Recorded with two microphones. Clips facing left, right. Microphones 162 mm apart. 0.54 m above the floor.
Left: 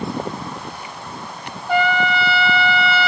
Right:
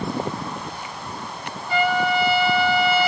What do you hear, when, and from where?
1.7 s a trumpet: 65° left (ahead or behind), 0.7 m